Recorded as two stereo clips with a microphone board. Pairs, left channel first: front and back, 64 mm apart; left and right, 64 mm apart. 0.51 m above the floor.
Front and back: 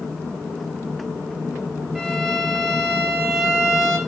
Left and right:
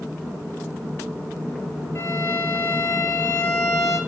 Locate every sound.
1.9 s a violin: 90° left, 1.0 m